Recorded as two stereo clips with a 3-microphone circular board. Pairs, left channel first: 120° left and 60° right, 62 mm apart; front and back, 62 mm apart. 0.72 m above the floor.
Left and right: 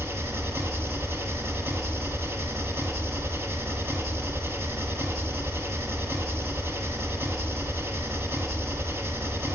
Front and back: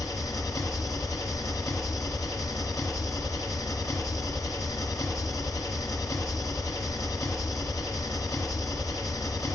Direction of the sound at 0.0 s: 15° right.